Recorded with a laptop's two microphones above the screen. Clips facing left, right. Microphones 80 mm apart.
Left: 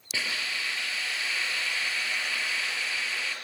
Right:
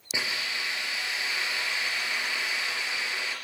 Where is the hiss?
20° right (ahead or behind), 4.5 m.